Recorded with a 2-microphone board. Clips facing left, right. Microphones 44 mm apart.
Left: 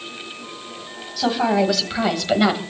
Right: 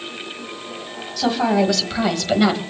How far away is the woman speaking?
About 3.5 m.